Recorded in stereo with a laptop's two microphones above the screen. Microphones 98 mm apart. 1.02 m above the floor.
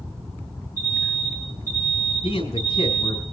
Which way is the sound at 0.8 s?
25° left (ahead or behind).